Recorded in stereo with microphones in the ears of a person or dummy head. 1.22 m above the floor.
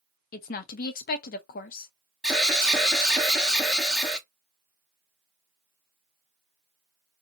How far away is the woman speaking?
About 0.6 m.